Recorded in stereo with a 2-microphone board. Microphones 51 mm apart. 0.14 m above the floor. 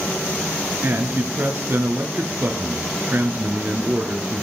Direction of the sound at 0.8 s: 40° right (ahead or behind).